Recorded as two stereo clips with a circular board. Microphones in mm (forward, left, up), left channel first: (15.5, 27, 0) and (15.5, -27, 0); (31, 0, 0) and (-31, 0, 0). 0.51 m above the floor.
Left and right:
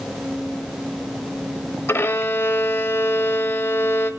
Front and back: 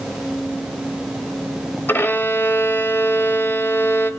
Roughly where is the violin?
Ahead left.